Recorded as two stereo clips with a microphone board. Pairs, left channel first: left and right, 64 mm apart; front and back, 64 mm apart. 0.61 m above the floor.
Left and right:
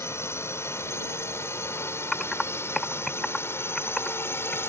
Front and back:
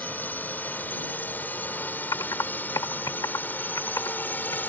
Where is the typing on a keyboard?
5° left.